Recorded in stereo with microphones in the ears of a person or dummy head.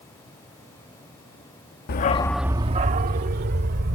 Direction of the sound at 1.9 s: 50° left (ahead or behind).